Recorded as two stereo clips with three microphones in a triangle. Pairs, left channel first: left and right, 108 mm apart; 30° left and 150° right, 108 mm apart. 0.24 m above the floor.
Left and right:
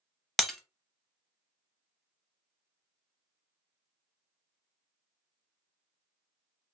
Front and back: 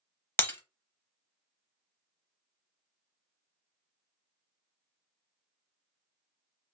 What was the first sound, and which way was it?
Breaking glass, 5° left.